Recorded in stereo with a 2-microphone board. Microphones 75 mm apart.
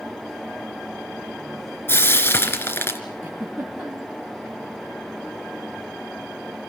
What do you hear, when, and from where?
1.9 s frying: 30° left (ahead or behind), 2.5 m
3.2 s a giggle: 25° right (ahead or behind), 3.5 m